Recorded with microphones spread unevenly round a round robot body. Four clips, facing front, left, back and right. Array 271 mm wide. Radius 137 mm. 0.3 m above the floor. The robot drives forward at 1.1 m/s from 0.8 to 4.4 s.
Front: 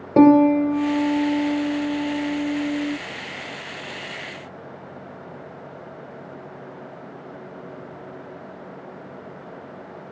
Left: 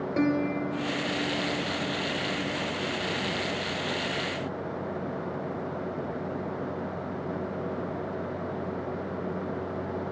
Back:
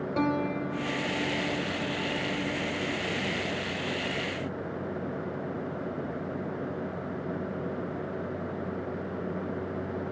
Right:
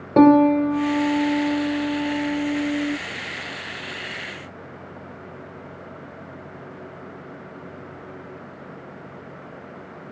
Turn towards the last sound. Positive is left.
turn(degrees=-60)